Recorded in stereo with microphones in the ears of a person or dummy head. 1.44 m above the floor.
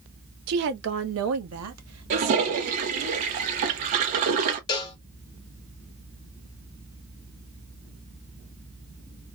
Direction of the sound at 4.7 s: 20° left (ahead or behind).